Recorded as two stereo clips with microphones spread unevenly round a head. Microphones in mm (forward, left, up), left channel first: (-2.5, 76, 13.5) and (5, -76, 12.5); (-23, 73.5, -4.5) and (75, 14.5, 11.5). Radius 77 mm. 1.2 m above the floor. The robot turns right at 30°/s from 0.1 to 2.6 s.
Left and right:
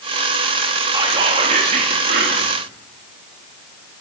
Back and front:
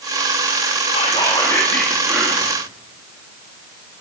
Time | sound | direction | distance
0.9 | whispering | 155° right | 3 m